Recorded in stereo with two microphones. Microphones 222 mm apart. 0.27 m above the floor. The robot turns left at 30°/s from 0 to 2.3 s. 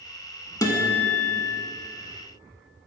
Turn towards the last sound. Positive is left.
turn(degrees=110)